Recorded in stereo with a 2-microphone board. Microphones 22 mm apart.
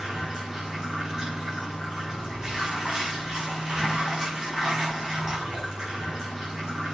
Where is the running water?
35° right (ahead or behind), 7 m.